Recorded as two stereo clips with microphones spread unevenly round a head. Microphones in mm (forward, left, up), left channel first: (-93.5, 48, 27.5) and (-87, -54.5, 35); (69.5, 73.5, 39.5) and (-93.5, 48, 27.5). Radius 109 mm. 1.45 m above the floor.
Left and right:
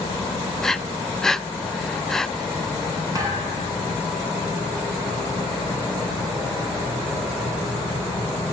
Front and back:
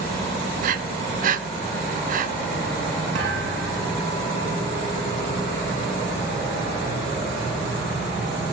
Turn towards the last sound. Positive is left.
turn(degrees=-145)